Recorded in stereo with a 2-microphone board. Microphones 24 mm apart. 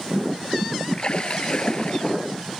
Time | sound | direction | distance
0.9 | a splash | 40° left (ahead or behind) | ?